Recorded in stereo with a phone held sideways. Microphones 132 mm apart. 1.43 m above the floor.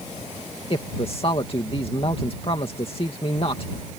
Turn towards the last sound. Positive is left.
turn(degrees=45)  # may be behind; listen again after turning